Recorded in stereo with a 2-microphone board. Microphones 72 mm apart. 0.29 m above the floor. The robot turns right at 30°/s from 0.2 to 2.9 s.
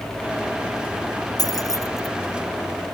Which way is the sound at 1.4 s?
55° left (ahead or behind).